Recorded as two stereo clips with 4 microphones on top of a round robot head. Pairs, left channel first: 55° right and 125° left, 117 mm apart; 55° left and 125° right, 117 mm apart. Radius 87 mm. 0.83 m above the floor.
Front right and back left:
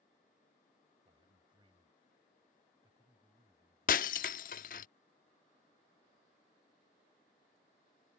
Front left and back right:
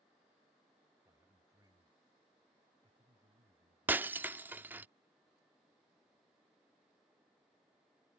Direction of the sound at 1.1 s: 170° left.